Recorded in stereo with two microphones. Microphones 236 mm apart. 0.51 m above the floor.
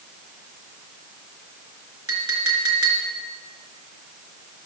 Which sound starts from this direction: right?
A clink, at 2.1 s.